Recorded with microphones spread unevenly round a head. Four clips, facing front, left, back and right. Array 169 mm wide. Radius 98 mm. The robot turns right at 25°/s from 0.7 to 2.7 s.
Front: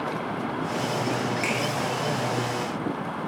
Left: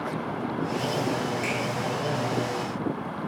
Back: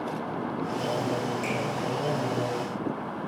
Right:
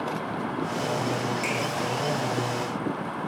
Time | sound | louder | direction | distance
1.4 | a finger snap | even, front 2 dB | 5° right | 1.6 m